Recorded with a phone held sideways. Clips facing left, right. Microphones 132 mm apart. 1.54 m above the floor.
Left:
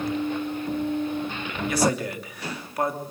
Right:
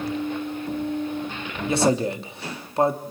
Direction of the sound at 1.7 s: 25° right (ahead or behind).